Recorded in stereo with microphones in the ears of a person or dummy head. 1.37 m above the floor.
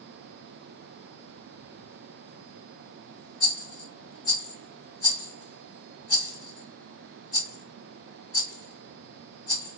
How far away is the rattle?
About 2.5 m.